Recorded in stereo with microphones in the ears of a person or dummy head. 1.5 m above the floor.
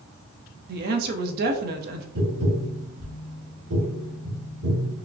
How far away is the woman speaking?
About 0.9 m.